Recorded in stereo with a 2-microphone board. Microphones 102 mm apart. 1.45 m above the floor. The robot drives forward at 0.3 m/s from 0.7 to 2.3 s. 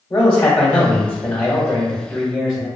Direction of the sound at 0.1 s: 20° left (ahead or behind).